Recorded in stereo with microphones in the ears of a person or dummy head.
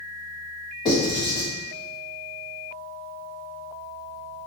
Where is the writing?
30° left (ahead or behind), 2.0 m.